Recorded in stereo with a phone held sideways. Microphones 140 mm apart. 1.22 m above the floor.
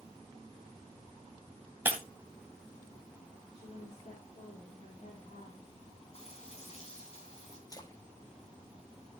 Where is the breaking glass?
15° right (ahead or behind), 2.5 m.